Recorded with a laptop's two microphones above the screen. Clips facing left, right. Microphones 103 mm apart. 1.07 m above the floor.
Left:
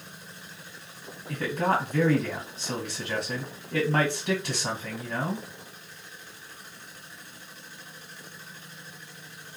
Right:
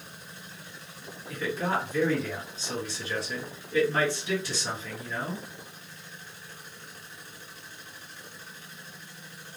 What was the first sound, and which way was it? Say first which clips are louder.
A man speaking: left 3 dB; 55° left (ahead or behind).